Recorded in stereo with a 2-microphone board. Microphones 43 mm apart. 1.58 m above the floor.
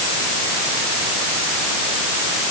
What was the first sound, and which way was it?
Only background noise.